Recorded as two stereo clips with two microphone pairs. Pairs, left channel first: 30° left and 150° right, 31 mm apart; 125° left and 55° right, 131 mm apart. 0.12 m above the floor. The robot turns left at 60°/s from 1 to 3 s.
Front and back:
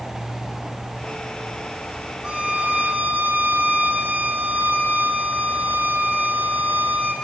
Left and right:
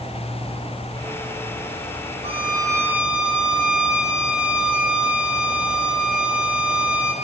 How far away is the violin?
About 5 m.